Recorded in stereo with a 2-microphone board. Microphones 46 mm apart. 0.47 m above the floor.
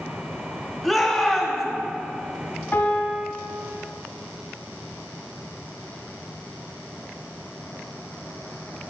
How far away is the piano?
About 1.1 m.